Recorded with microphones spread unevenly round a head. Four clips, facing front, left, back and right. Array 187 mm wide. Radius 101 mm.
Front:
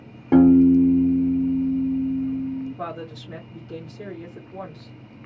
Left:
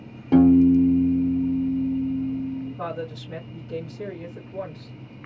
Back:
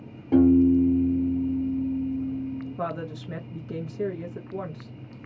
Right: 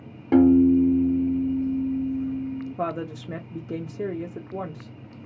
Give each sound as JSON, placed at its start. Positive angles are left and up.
{"t": 0.3, "sound": "a piano", "azimuth_deg": -10, "distance_m": 0.8}
{"t": 2.8, "sound": "a woman speaking", "azimuth_deg": -125, "distance_m": 1.2}